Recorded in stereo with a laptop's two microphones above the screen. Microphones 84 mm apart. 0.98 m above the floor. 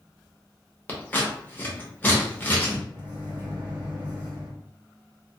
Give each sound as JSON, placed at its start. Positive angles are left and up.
{"t": 0.9, "sound": "scissors", "side_deg": 20, "distance_m": 0.8}
{"t": 2.9, "sound": "a microwave", "side_deg": -65, "distance_m": 1.5}